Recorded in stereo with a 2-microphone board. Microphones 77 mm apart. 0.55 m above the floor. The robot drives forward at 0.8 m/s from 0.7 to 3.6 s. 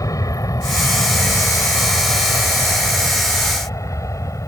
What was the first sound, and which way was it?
An aircraft, 50° left (ahead or behind).